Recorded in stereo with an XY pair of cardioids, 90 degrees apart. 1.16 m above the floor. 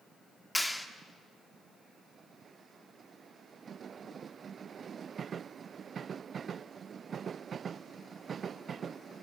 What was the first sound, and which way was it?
A clap, 10° left.